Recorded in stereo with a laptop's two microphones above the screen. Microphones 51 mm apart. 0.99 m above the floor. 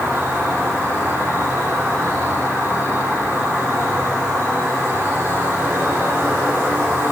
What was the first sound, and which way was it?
An insect, 60° right (ahead or behind).